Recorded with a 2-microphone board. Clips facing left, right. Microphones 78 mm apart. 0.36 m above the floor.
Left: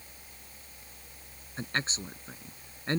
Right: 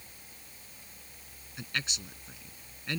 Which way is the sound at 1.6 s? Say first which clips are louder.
Left 4 dB; 35° left (ahead or behind).